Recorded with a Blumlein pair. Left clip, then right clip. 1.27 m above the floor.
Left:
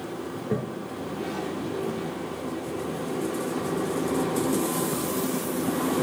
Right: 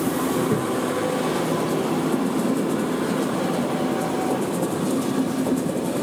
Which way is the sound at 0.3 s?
10° right.